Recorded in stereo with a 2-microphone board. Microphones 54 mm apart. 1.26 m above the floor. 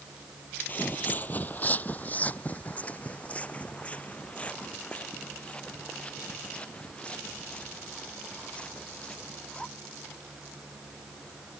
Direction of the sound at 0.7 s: 35° left (ahead or behind).